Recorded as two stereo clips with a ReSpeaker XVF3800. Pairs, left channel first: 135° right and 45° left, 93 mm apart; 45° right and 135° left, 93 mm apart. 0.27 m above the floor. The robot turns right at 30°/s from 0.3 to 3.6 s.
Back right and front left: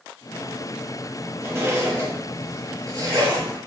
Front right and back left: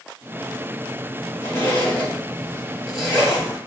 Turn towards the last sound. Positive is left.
turn(degrees=65)